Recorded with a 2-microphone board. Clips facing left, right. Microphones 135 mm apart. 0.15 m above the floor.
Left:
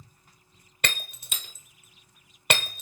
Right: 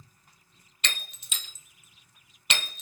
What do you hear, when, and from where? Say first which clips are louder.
0.8 s breaking glass: left 5 dB; 55° left (ahead or behind), 0.8 m